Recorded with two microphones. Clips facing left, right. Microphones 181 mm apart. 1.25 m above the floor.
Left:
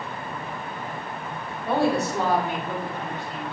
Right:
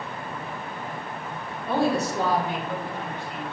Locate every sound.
1.7 s a woman speaking: 65° left (ahead or behind), 3.5 m; by 3.5 s 40° left (ahead or behind), 4 m